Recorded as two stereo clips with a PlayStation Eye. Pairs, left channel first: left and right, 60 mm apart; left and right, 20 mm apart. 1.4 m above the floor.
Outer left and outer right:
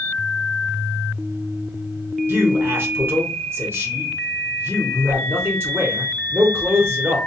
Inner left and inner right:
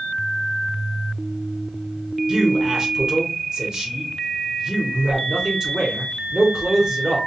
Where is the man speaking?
40° right (ahead or behind), 0.9 m.